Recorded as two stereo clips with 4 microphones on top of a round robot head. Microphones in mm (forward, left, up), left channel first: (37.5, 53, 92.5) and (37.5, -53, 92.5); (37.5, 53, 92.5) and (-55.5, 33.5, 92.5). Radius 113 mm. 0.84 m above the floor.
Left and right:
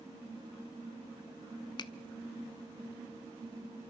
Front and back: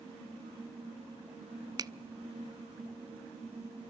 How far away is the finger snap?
About 0.6 m.